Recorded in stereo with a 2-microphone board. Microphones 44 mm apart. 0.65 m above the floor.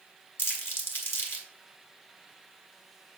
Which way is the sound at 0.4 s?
55° left (ahead or behind).